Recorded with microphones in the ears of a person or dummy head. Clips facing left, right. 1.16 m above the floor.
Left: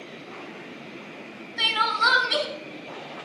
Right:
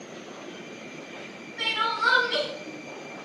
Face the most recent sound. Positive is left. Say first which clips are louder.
# left 3 dB
turn(degrees=60)  # may be behind; listen again after turning